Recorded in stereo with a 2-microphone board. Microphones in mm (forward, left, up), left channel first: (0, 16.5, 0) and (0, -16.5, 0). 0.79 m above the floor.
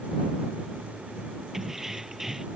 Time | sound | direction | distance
1.5 | keys jangling | 10° right (ahead or behind) | ?